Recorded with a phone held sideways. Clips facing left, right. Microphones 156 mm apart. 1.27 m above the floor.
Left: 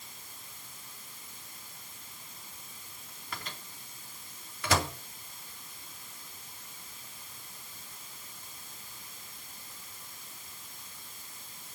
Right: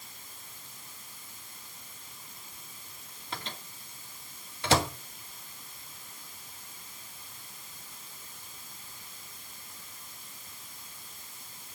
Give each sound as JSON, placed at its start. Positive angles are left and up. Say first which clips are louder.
{"t": 3.3, "sound": "a microwave", "louder": "right 3 dB", "side_deg": -25, "distance_m": 2.0}